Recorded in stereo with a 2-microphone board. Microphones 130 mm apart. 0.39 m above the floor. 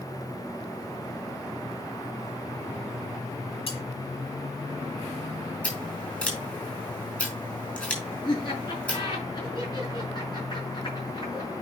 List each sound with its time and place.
3.7 s cutlery clinking: 55° left (ahead or behind), 6.5 m
5.6 s scissors: 10° left (ahead or behind), 4.5 m
8.2 s laughter: 40° left (ahead or behind), 5.5 m